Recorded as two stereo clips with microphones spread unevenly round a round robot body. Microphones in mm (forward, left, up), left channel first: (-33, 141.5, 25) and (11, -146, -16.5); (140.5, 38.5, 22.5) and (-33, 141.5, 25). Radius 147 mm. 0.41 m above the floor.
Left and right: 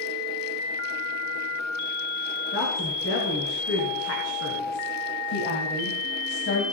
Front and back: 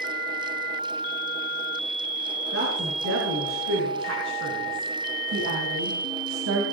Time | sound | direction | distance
2.5 | a woman speaking | 150° left | 6.5 m